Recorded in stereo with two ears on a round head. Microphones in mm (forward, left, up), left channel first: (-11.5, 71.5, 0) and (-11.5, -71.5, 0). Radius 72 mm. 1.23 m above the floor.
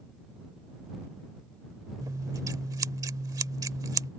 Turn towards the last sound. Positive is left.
turn(degrees=-20)  # may be behind; listen again after turning